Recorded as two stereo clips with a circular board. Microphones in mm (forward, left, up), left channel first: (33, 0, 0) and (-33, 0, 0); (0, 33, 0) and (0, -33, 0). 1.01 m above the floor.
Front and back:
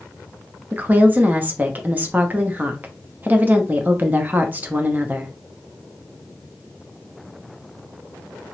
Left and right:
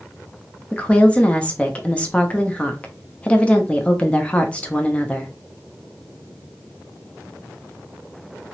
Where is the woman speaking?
145° left, 0.7 m.